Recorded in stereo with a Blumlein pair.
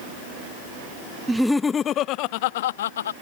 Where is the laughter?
10° right; by 3.1 s 65° left.